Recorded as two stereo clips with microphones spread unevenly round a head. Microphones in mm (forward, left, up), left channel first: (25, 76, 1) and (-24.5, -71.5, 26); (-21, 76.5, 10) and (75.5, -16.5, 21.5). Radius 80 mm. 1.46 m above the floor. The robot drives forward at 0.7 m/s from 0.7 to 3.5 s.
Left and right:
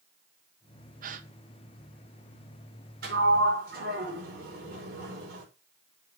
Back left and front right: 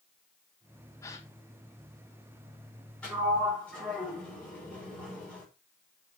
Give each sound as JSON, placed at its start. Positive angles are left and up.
{"t": 1.0, "sound": "a gasp", "azimuth_deg": -150, "distance_m": 1.0}
{"t": 3.0, "sound": "a sliding door", "azimuth_deg": -140, "distance_m": 5.0}